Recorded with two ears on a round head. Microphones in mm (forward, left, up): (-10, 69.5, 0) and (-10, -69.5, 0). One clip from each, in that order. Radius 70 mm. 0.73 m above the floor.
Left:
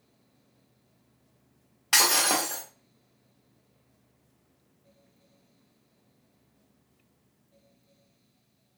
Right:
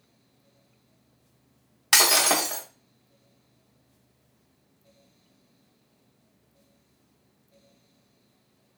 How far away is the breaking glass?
About 0.7 m.